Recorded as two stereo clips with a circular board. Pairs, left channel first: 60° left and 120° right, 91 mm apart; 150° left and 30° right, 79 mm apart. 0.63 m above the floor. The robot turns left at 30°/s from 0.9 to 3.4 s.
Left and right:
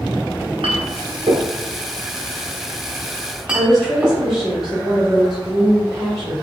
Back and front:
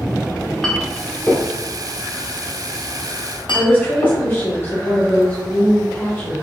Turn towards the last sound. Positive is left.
turn(degrees=160)